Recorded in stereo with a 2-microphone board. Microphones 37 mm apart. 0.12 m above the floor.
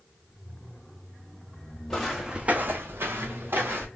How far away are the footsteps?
About 0.7 m.